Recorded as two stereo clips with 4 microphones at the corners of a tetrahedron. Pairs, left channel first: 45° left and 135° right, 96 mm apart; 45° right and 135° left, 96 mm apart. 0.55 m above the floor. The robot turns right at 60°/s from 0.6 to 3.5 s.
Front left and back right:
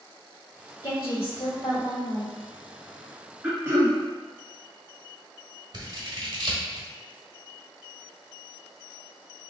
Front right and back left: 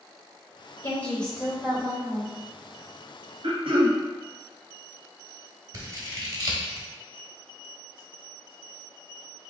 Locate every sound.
0.8 s a woman speaking: 15° left, 1.9 m; by 2.3 s 105° left, 1.9 m
3.4 s throat clearing: 155° left, 1.4 m; by 4.0 s 160° left, 1.4 m
5.7 s scissors: 175° right, 1.1 m